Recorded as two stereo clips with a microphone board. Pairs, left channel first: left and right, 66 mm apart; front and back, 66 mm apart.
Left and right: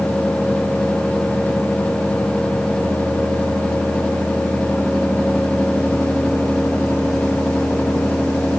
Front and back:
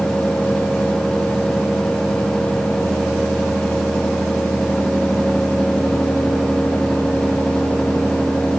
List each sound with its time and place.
Only background noise.